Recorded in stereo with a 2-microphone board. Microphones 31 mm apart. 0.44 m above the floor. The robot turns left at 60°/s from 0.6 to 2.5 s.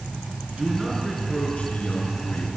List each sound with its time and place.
0.5 s a man speaking: 150° right, 6.5 m; by 2.5 s 95° left, 6.5 m